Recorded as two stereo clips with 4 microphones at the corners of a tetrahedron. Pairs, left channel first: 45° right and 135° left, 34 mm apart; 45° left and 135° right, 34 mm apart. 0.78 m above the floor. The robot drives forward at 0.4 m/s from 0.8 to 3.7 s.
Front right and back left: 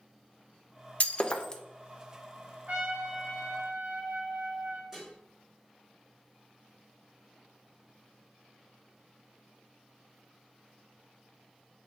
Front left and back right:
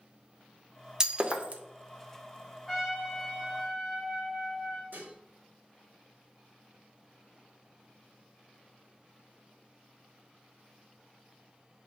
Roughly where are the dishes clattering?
Behind right.